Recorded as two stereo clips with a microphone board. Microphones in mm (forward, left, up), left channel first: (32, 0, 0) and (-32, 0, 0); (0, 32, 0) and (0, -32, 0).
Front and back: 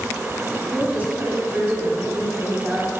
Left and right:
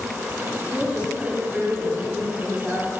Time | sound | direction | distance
0.7 | a woman speaking | 145° right | 1.4 m